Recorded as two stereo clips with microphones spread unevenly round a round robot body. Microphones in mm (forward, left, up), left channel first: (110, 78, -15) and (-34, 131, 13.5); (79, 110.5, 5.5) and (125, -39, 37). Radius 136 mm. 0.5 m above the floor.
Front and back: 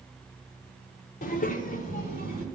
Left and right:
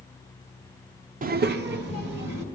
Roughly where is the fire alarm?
I don't hear a fire alarm.